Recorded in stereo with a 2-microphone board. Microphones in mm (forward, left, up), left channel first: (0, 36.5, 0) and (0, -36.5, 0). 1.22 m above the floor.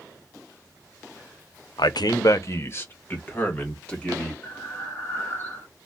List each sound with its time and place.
1.8 s a man speaking: 75° left (ahead or behind), 0.5 m; by 4.3 s 15° left (ahead or behind), 2.0 m
4.4 s breathing: 25° left (ahead or behind), 1.8 m